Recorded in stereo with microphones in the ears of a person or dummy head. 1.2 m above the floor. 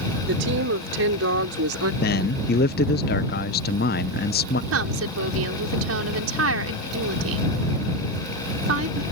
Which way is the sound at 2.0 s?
45° left (ahead or behind).